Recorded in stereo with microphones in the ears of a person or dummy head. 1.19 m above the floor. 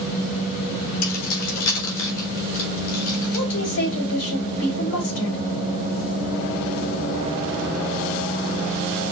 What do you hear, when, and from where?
1.0 s keys jangling: 80° left, 2 m
3.3 s a woman speaking: 60° left (ahead or behind), 3.5 m